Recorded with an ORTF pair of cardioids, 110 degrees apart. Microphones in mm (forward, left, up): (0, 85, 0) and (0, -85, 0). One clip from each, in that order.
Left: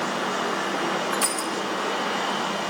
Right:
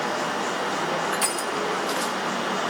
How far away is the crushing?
About 4.5 m.